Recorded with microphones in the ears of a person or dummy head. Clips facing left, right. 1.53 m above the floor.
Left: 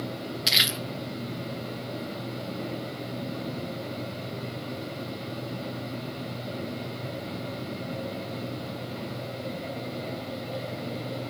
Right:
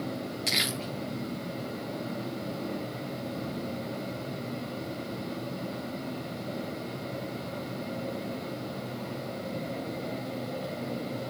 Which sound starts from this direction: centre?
Crumpling, at 0.5 s.